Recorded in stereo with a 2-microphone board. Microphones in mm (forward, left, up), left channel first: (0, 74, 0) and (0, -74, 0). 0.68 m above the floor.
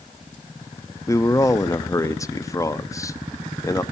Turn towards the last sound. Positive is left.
turn(degrees=20)  # may be behind; listen again after turning